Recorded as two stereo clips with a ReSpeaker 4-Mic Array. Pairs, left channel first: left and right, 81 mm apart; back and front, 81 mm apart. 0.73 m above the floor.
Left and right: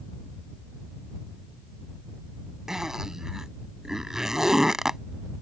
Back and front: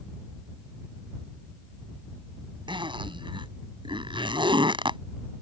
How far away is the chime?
I don't hear a chime.